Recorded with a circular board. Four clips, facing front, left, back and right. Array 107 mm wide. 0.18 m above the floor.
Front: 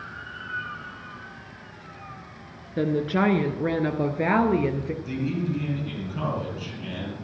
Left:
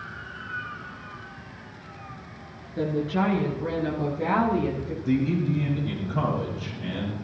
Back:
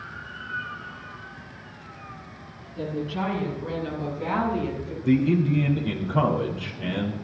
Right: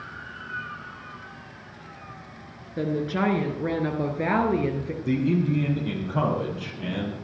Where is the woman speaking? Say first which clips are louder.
Even, front 6 dB; 15° right, 3 m; by 4.9 s 30° right, 3.5 m.